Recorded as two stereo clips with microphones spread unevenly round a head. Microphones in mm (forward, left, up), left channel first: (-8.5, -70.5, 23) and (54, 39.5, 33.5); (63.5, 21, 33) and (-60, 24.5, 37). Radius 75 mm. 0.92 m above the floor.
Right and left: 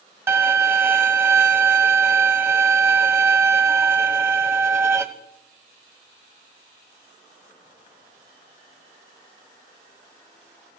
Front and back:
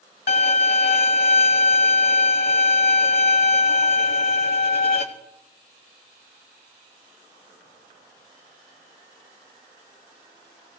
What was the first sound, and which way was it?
A violin, 10° right.